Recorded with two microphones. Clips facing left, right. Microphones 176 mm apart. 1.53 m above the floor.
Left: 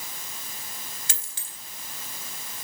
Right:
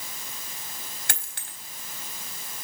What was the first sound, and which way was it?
A dropped coin, 65° right (ahead or behind).